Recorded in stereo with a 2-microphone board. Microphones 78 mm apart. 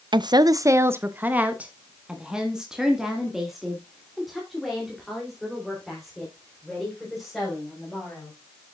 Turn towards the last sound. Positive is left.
turn(degrees=5)  # may be behind; listen again after turning